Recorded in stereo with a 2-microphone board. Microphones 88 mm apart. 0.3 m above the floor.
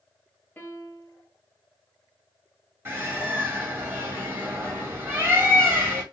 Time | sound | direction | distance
0.6 | a piano | 20° left (ahead or behind) | 1.2 m
2.9 | a bird | 25° right (ahead or behind) | 1.6 m